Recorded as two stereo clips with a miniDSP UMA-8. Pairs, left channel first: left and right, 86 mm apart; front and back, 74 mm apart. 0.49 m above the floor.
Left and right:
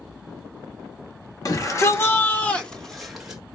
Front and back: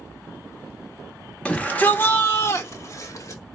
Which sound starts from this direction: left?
A shout, at 1.4 s.